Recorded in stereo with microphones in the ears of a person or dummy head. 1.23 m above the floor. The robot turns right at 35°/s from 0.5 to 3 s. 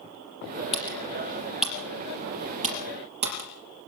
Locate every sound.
0.7 s typing on a keyboard: 35° left (ahead or behind), 5.5 m; by 3.5 s 45° right (ahead or behind), 5.5 m